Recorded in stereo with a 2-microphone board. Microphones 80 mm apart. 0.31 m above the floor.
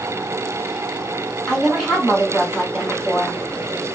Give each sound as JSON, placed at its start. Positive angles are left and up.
{"t": 1.5, "sound": "a woman speaking", "side_deg": 5, "distance_m": 2.0}